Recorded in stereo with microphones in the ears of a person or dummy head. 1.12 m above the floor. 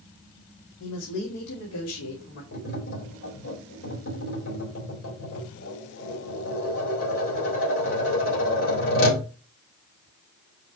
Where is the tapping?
70° left (ahead or behind), 3 m.